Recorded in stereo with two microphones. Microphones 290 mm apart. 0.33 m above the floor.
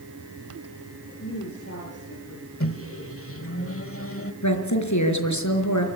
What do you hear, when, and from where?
1.2 s a woman speaking: 45° left (ahead or behind), 7 m; by 2.5 s 55° left (ahead or behind), 7.5 m
2.6 s a microwave: 45° left (ahead or behind), 1.3 m
4.4 s a woman speaking: 70° left (ahead or behind), 4.5 m